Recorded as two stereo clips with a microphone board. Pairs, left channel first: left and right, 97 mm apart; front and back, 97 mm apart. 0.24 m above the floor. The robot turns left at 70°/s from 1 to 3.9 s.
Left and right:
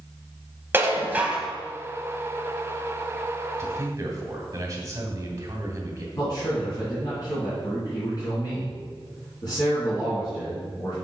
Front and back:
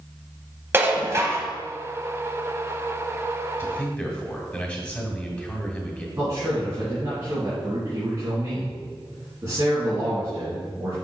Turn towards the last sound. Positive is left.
turn(degrees=125)